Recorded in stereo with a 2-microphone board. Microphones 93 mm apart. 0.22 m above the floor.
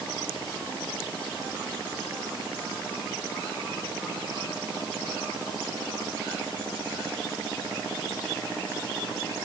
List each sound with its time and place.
Only background noise.